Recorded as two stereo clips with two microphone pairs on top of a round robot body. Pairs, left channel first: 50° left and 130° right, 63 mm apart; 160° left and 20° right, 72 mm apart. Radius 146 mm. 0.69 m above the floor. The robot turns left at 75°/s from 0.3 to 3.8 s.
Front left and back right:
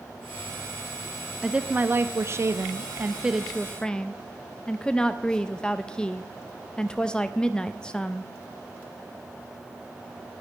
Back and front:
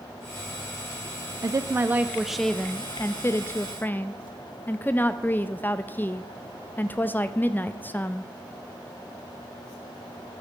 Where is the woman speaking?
55° right, 0.6 m; by 8.3 s 125° left, 0.6 m.